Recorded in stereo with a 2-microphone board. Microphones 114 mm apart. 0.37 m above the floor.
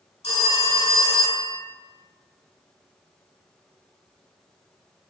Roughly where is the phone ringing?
Left.